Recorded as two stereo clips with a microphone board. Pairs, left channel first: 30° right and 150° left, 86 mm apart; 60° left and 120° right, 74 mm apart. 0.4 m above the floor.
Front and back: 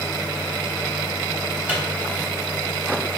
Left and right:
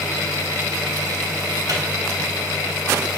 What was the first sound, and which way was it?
A microwave, 140° right.